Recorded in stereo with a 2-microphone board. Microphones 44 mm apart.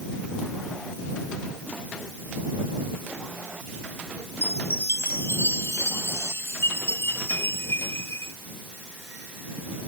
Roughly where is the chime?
Left.